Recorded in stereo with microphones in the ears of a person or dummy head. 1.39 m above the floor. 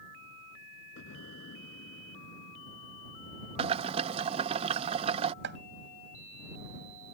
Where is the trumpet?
No trumpet in this recording.